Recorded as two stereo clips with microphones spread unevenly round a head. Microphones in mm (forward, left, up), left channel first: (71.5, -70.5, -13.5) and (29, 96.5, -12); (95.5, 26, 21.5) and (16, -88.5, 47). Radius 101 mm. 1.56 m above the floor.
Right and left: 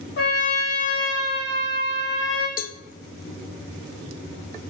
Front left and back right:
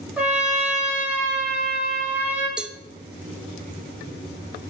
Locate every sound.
0.2 s a trumpet: 45° right, 4 m
2.6 s a cowbell: 50° right, 0.6 m